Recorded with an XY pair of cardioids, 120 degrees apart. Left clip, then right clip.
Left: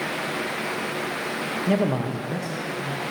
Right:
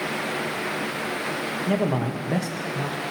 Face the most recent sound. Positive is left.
turn(degrees=-80)